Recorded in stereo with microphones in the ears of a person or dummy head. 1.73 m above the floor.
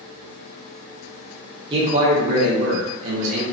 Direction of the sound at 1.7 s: 30° right (ahead or behind).